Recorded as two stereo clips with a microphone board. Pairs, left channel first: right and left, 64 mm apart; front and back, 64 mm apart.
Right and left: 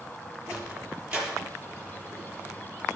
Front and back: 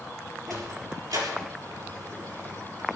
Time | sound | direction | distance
0.5 | a sliding door | 165° left | 4 m